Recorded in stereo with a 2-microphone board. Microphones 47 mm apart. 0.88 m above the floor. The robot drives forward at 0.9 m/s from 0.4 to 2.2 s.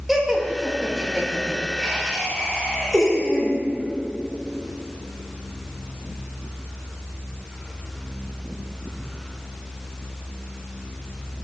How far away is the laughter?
About 1.0 m.